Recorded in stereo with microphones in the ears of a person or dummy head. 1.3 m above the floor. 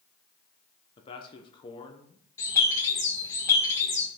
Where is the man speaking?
20° left (ahead or behind), 0.8 m.